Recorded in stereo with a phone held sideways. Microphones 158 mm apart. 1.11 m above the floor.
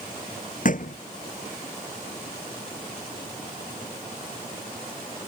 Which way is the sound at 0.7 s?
55° left (ahead or behind).